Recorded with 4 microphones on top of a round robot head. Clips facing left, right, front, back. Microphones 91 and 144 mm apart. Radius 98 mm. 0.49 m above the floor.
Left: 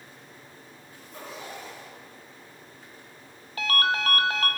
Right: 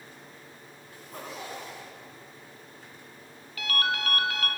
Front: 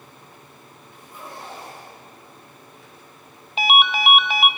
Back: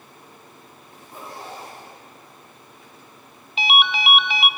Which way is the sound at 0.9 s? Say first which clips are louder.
Right 1 dB, back 1 dB; 115° right.